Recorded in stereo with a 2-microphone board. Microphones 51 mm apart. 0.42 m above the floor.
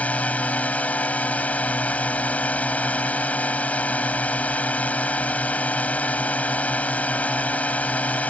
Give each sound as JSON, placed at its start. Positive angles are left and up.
{"t": 0.0, "sound": "a drone", "side_deg": 30}